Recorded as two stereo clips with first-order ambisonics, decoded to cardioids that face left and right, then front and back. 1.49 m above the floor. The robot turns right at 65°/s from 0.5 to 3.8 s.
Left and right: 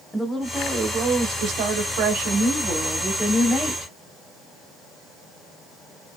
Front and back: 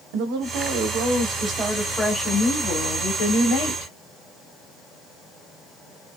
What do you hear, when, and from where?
0.1 s a woman speaking: 175° left, 0.8 m; by 3.9 s 30° left, 0.8 m